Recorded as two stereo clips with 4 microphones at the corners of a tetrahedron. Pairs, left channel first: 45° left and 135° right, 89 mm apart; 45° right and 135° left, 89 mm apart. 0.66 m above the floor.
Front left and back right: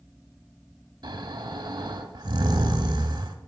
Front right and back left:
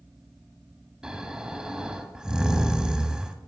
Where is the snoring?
145° right, 0.8 m.